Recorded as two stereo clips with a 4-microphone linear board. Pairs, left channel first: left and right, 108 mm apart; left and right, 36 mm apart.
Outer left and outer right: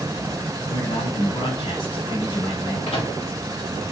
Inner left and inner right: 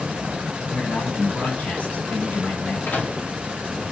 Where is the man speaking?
55° left (ahead or behind), 3 m.